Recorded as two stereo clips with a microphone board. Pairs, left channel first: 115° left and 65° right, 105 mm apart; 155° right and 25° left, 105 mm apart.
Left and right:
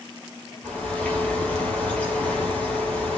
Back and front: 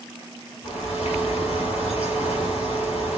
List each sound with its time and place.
0.6 s a bird: 170° right, 5 m